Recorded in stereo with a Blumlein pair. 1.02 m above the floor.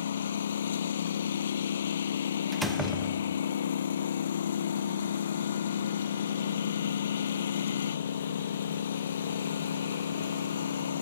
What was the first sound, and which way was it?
A lawn mower, 65° left.